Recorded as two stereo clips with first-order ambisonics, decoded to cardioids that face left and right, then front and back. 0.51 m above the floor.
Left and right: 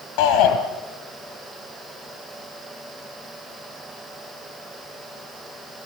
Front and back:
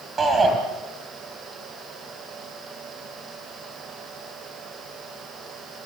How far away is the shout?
About 2.5 m.